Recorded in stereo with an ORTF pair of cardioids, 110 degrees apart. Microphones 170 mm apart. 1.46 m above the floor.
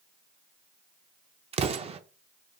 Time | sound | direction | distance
1.5 | an explosion | 35° right | 0.5 m